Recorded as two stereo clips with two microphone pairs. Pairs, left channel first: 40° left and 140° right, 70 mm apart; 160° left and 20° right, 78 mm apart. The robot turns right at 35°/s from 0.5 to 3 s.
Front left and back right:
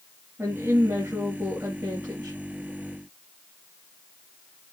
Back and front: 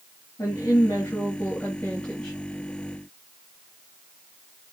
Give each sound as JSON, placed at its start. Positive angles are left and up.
{"t": 0.4, "sound": "a woman speaking", "azimuth_deg": 180, "distance_m": 2.0}